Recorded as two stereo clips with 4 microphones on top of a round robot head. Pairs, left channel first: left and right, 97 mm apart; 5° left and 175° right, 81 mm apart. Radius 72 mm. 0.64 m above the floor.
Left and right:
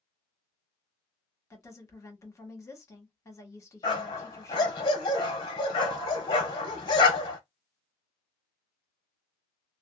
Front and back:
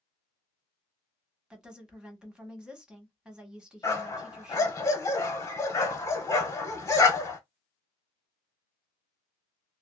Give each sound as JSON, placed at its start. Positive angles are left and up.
{"t": 1.5, "sound": "a woman speaking", "azimuth_deg": 115, "distance_m": 1.3}
{"t": 3.8, "sound": "a dog barking", "azimuth_deg": 55, "distance_m": 1.2}